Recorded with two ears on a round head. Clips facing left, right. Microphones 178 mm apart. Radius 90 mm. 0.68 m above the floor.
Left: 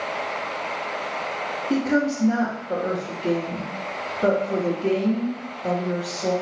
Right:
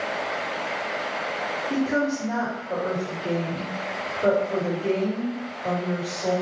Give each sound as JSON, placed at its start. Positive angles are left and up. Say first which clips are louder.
{"t": 1.7, "sound": "a woman speaking", "louder": "left 3 dB", "side_deg": 50, "distance_m": 1.8}